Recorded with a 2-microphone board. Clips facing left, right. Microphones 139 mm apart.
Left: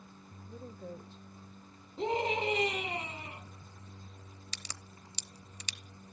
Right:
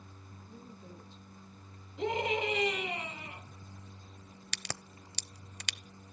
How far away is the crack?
About 0.6 m.